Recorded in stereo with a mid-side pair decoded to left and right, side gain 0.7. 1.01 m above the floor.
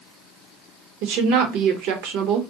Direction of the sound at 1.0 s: 70° right.